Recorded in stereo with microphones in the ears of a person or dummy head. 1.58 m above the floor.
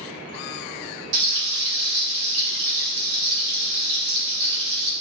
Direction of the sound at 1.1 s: 75° right (ahead or behind).